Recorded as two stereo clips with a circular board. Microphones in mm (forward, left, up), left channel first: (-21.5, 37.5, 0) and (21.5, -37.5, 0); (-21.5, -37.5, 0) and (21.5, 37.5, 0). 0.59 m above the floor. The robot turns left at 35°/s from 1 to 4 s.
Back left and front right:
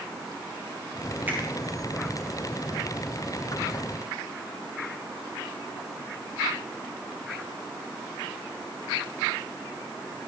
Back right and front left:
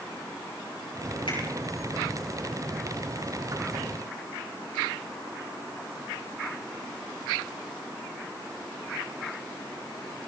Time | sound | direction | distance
1.3 | a finger snap | 130° right | 8 m